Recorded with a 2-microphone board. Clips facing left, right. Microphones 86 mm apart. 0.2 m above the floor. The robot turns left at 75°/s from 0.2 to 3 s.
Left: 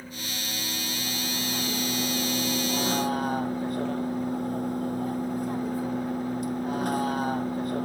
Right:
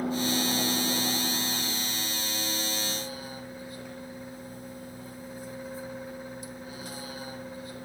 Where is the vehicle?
90° right; by 7.9 s 60° left.